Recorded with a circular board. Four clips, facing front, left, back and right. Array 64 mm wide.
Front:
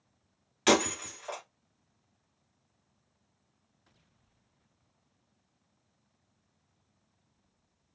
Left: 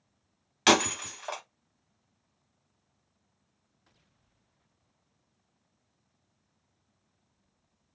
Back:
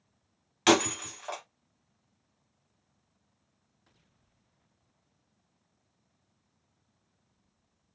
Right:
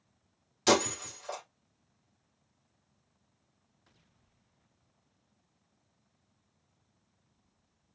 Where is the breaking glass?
110° left, 0.8 m.